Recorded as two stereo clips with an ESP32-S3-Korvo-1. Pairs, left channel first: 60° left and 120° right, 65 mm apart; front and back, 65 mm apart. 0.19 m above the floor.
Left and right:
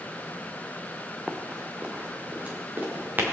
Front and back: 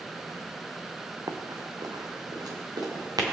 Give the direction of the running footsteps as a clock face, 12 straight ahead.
7 o'clock.